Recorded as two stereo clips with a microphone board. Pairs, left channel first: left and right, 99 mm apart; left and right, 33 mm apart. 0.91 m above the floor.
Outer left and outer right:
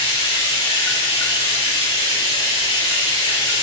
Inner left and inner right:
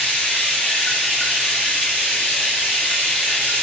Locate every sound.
0.0 s running water: 45° left (ahead or behind), 1.2 m